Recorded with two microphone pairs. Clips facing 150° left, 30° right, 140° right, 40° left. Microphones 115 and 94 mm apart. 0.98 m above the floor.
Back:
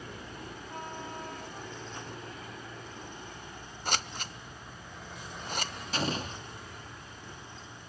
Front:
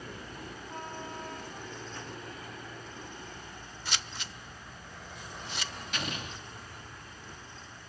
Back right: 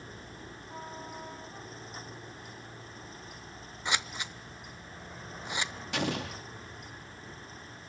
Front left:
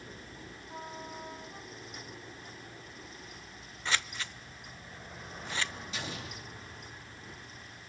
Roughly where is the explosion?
Behind right.